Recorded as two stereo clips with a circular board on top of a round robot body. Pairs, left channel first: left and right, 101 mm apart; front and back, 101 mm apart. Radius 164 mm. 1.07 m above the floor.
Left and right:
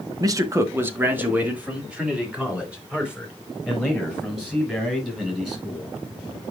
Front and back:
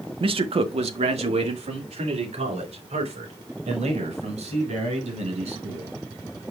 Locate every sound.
0.2 s a man speaking: 145° right, 0.8 m; by 6.0 s 175° right, 6.5 m